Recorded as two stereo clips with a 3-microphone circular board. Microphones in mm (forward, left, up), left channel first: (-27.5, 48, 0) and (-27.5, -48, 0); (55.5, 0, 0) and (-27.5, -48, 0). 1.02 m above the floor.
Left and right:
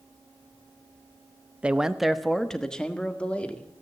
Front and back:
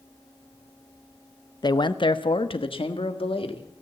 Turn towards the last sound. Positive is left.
turn(degrees=15)